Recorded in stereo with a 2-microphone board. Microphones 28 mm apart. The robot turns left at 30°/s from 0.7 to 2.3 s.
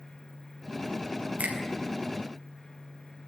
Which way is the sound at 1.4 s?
65° right (ahead or behind).